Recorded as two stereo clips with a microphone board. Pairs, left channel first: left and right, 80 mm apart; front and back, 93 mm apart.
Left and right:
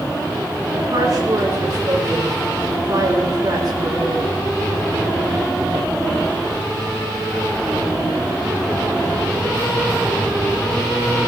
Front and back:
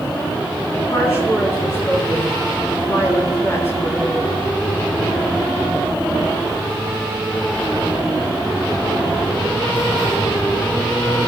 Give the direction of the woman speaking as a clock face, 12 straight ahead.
2 o'clock.